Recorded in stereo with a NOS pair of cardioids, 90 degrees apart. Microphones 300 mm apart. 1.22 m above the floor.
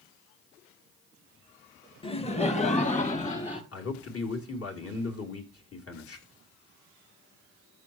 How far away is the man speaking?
About 3 m.